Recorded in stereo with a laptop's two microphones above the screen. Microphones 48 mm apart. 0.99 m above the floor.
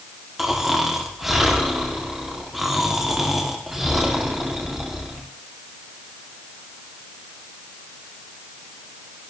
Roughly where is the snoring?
Centre.